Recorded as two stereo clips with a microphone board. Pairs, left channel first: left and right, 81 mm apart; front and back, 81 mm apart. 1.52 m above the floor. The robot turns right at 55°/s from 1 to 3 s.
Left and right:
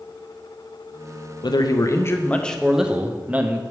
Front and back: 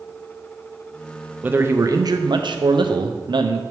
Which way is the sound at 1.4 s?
115° left.